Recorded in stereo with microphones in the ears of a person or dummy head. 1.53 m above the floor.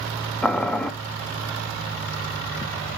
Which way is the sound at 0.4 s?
5° left (ahead or behind).